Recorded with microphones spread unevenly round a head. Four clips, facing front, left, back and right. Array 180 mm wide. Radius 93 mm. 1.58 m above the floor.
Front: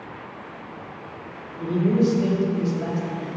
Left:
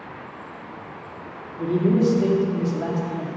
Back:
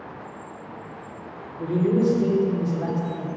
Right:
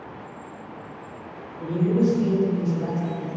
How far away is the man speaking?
About 4 m.